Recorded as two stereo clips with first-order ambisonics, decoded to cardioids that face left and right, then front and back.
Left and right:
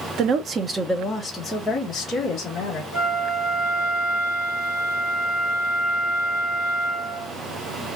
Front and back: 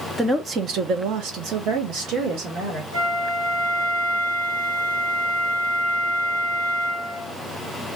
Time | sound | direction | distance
0.2 | a woman speaking | 95° right | 0.5 m
2.9 | a flute | 175° right | 1.7 m